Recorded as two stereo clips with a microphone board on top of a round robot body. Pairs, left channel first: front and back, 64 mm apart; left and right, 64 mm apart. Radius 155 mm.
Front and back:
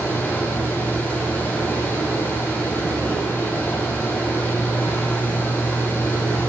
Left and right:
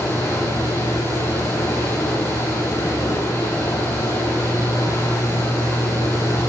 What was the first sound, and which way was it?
Running water, 70° left.